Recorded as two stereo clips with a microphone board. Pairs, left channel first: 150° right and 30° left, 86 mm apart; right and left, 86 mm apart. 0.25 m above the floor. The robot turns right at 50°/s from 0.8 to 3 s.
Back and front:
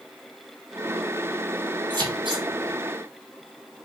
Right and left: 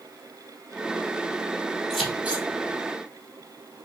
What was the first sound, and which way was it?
Scissors, straight ahead.